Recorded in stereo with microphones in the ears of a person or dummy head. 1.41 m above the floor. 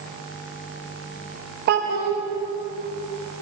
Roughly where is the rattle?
I don't hear a rattle.